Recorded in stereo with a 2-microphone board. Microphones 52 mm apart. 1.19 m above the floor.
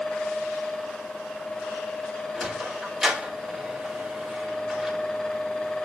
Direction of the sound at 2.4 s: 5° right (ahead or behind).